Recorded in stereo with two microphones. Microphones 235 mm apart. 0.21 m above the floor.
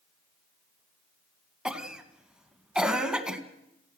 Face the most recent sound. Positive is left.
turn(degrees=-5)  # may be behind; listen again after turning